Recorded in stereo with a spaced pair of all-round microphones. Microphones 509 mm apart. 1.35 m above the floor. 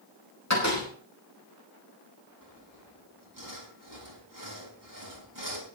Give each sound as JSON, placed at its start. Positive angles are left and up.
{"t": 0.5, "sound": "a door slam", "side_deg": 30, "distance_m": 4.5}
{"t": 2.4, "sound": "sawing", "side_deg": -40, "distance_m": 3.5}